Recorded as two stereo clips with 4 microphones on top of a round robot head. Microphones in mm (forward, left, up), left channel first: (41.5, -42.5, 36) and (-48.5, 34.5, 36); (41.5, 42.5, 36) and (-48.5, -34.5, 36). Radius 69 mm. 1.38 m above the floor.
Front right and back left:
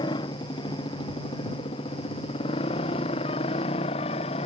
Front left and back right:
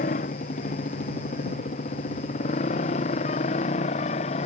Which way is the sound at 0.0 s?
15° left.